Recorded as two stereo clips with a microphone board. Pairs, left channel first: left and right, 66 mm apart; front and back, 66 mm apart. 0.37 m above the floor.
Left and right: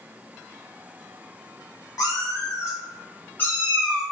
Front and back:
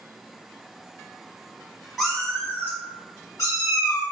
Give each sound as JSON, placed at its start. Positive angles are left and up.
{"t": 2.0, "sound": "a cat meowing", "azimuth_deg": 85, "distance_m": 0.7}